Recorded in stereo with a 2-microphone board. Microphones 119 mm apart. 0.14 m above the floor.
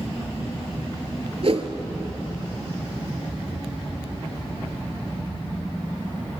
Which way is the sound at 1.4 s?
60° right (ahead or behind).